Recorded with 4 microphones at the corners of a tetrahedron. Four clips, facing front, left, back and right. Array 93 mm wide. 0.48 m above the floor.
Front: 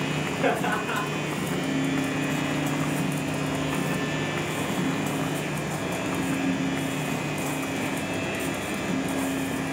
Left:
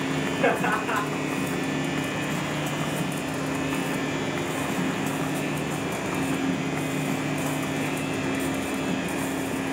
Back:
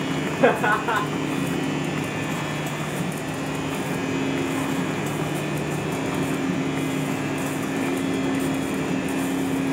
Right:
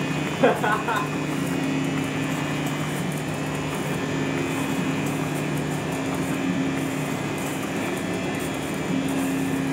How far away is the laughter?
About 1.3 m.